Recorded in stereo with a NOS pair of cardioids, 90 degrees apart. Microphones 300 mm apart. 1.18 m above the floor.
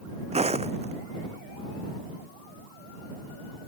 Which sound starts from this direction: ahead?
Footsteps, at 0.3 s.